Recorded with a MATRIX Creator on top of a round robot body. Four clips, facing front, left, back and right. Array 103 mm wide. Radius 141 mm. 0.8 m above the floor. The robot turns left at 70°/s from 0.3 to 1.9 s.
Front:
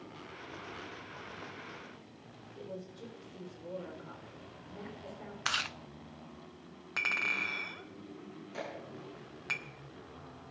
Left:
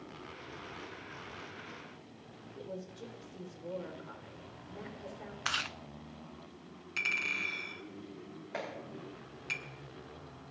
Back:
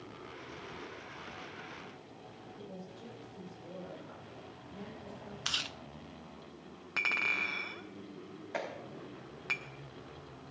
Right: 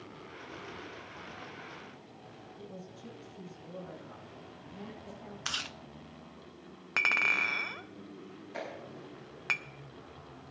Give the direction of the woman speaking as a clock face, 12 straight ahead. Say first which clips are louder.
Left 5 dB, front 5 dB; 10 o'clock.